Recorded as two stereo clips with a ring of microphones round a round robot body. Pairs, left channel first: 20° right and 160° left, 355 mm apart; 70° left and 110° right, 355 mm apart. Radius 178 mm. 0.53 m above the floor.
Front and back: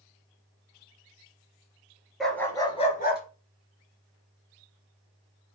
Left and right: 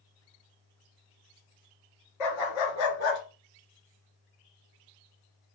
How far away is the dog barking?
About 2.5 m.